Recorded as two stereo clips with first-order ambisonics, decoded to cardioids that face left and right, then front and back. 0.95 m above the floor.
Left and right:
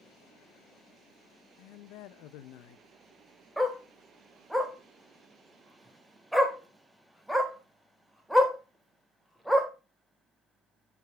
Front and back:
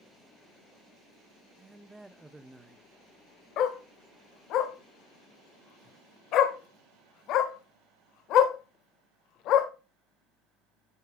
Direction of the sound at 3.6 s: 5° right.